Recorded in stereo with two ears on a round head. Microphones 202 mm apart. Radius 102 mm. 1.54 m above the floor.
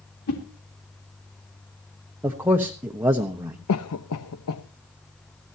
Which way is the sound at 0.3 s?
75° left (ahead or behind).